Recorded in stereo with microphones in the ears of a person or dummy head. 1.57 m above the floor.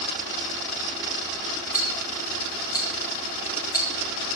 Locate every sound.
1.7 s ticking: 20° left (ahead or behind), 3 m